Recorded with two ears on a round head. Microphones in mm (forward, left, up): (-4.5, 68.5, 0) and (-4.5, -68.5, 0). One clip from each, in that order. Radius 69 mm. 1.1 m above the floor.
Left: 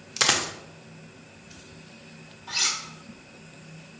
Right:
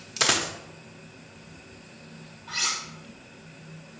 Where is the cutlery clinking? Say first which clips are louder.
Left 2 dB; 75° left (ahead or behind), 2.5 m.